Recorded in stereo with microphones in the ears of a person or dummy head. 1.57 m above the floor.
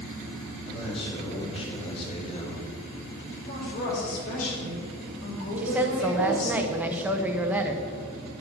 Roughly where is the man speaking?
Left.